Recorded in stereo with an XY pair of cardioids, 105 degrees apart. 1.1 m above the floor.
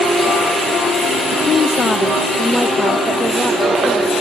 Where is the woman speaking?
60° left, 0.7 m; by 4.1 s 10° right, 1.5 m.